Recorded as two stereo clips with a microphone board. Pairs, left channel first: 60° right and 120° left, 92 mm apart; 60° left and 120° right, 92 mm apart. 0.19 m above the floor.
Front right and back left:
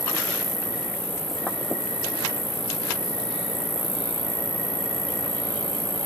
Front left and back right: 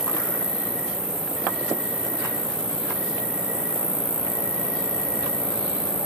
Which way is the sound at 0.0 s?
65° right.